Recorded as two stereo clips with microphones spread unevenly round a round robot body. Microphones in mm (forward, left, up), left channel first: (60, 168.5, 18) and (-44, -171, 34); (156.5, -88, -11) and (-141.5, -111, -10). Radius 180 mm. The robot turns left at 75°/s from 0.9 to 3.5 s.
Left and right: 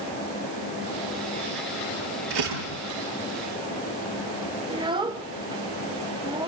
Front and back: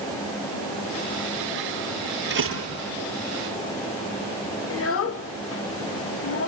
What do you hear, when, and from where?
2.3 s a door slam: 120° right, 9 m; by 2.8 s 155° right, 9 m
4.7 s a child speaking: 30° right, 1.0 m